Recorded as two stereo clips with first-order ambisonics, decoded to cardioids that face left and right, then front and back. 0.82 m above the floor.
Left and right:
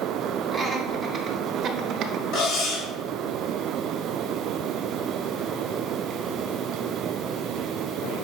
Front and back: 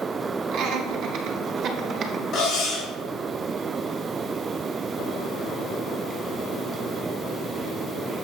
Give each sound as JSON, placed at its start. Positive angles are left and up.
{"t": 0.5, "sound": "laughter", "azimuth_deg": 180, "distance_m": 1.3}
{"t": 2.3, "sound": "cutlery clinking", "azimuth_deg": 55, "distance_m": 2.5}